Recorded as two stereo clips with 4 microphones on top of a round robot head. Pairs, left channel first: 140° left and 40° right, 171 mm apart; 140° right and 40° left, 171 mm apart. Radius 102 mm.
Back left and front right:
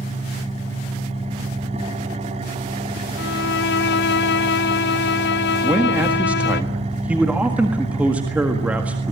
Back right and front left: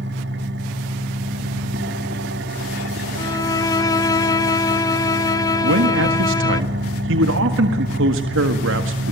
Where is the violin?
150° left, 0.8 m.